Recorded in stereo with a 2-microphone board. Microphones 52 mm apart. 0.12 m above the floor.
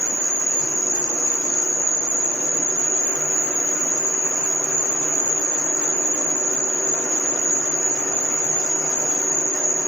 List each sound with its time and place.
0.0 s an insect: 5° left (ahead or behind), 2 m